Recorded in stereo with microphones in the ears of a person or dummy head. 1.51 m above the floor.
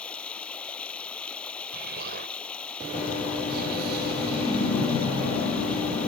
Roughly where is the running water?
Centre.